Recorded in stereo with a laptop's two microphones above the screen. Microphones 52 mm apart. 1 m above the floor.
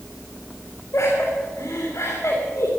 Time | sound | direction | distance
0.9 | laughter | 55° left (ahead or behind) | 3 m